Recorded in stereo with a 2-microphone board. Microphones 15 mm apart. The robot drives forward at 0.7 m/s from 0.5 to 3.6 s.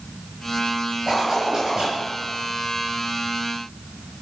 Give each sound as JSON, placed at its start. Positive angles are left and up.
{"t": 1.1, "sound": "a zipper", "side_deg": -35, "distance_m": 6.5}